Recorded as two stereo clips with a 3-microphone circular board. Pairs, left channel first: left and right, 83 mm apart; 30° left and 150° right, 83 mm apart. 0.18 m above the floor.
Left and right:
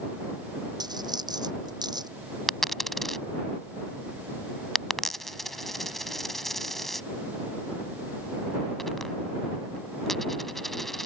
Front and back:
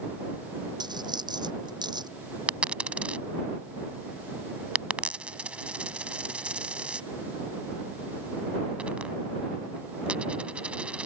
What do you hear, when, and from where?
0.8 s a dropped coin: 125° right
2.5 s a dropped coin: 170° left